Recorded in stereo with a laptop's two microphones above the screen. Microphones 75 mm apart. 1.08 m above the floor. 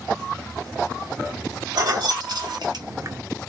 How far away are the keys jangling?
About 1.5 m.